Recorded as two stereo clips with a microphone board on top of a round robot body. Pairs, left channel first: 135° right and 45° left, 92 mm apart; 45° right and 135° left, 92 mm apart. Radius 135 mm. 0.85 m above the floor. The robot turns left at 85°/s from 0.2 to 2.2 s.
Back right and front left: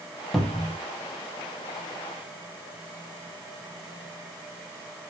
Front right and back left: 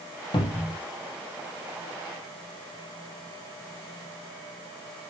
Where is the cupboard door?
50° right, 2.0 m; by 0.8 s 85° right, 2.0 m.